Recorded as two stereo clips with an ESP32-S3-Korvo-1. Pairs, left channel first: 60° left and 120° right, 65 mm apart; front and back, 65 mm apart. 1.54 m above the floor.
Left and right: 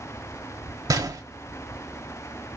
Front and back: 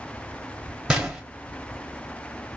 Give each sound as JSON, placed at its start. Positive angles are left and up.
{"t": 0.9, "sound": "a gunshot", "azimuth_deg": -100, "distance_m": 0.9}